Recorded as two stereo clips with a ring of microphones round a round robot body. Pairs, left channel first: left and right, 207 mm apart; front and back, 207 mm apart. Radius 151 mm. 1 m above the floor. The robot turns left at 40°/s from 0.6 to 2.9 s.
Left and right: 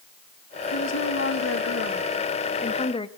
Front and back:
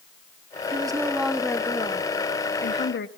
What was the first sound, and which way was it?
A woman speaking, 115° left.